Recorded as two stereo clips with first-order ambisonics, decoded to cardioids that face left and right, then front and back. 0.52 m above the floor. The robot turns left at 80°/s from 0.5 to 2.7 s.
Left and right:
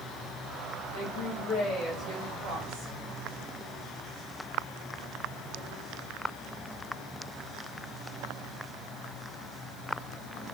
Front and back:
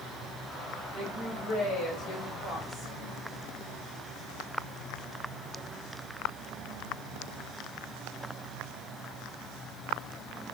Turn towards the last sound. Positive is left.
turn(degrees=-55)